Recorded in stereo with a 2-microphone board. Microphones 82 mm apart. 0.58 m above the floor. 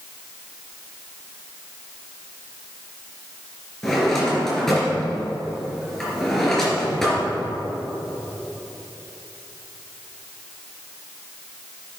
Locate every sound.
3.8 s a drawer: 5° left (ahead or behind), 3.5 m